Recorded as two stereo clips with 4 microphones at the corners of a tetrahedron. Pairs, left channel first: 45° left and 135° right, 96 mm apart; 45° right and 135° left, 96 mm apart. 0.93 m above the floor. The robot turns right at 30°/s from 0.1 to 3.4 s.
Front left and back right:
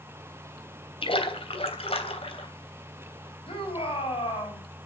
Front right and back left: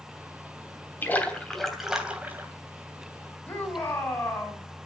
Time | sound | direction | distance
1.0 | a splash | 25° left | 3 m
3.5 | a shout | 25° left | 6 m